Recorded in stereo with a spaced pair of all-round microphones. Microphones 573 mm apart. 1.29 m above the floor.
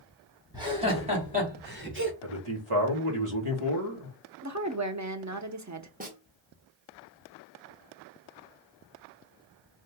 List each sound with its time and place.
0.5 s laughter: 10° right (ahead or behind), 2.5 m; by 2.1 s 20° right (ahead or behind), 2 m
2.2 s a man speaking: 60° right (ahead or behind), 1.6 m
4.4 s a woman speaking: 30° right (ahead or behind), 0.7 m
6.0 s a snare drum: 15° right (ahead or behind), 1.5 m